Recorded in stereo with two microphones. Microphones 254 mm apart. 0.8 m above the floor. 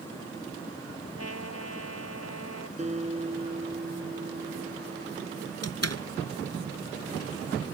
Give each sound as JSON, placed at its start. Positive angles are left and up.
{"t": 1.2, "sound": "a trumpet", "side_deg": 75}
{"t": 2.8, "sound": "a guitar", "side_deg": -25}
{"t": 5.6, "sound": "a door slam", "side_deg": 75}